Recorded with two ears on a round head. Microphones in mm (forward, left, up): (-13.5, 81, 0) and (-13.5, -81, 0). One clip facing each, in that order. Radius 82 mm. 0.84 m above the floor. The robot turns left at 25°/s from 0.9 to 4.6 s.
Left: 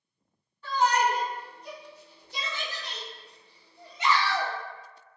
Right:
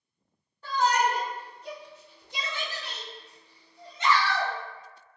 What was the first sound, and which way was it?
A shout, 35° right (ahead or behind).